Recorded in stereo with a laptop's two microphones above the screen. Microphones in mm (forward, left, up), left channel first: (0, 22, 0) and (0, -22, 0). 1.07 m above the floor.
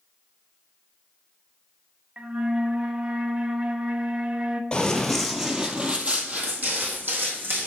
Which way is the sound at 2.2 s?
30° right (ahead or behind).